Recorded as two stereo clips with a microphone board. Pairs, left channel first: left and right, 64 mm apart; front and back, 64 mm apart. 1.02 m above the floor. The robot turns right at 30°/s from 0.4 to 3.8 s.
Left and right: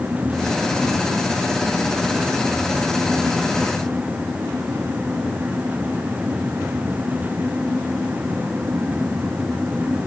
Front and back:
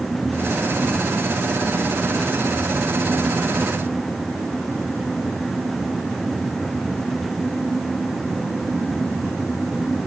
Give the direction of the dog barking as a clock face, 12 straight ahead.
I don't hear a dog barking.